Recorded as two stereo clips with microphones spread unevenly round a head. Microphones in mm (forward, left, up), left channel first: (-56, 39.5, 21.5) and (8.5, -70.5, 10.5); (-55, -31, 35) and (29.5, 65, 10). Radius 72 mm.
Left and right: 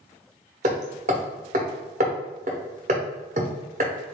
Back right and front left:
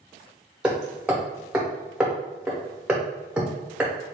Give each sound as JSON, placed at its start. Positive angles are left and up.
{"t": 0.6, "sound": "hammering", "azimuth_deg": -45, "distance_m": 0.8}